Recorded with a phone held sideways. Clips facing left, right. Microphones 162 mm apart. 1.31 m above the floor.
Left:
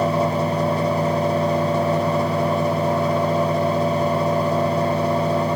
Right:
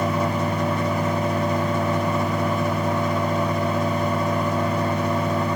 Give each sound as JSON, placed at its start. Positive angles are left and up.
{"t": 0.0, "sound": "a fan", "side_deg": 35, "distance_m": 1.4}